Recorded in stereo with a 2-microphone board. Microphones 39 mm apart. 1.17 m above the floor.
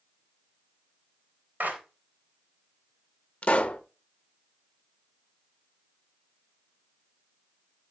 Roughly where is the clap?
Right.